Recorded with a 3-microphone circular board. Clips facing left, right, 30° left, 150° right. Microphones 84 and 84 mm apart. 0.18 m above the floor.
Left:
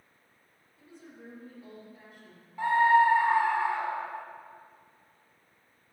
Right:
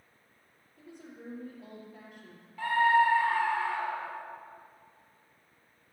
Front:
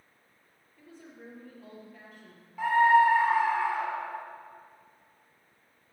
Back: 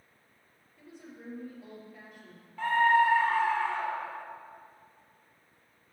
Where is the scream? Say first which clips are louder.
Left 3 dB, front 3 dB; 90° left, 1.1 m.